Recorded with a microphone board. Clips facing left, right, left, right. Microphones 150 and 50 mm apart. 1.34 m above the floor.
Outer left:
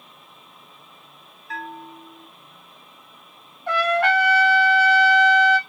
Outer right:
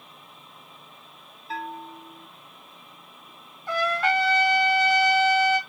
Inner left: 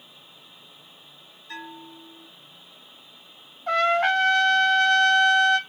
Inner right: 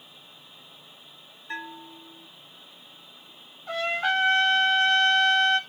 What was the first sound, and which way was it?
A bell, 25° right (ahead or behind).